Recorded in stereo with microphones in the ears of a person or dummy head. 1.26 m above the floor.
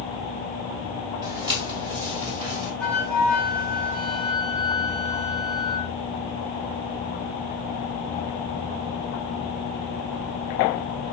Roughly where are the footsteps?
Right.